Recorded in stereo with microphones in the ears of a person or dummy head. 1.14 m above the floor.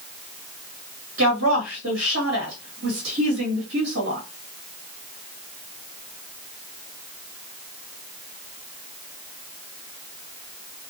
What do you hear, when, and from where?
1.2 s a woman speaking: 80° right, 1.5 m